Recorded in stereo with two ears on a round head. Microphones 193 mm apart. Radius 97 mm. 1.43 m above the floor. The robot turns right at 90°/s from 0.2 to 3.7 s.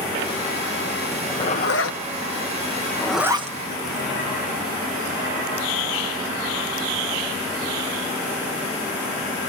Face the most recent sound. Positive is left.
turn(degrees=-50)  # may be behind; listen again after turning